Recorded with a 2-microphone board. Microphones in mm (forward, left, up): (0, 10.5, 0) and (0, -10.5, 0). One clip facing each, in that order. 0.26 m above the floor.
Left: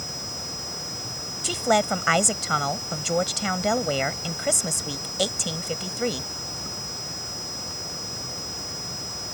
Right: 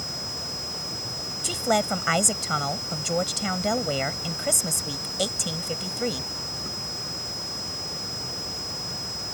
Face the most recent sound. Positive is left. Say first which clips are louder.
# left 2 dB
turn(degrees=15)  # may be behind; listen again after turning